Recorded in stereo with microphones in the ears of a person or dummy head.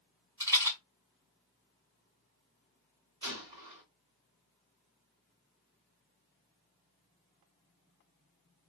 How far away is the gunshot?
About 1.8 m.